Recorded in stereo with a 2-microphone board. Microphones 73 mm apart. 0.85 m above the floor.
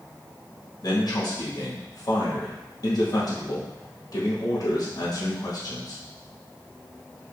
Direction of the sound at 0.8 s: 55° left (ahead or behind).